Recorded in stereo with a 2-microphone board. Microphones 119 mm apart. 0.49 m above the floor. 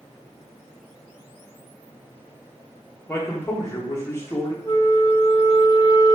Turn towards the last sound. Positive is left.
turn(degrees=30)  # may be behind; listen again after turning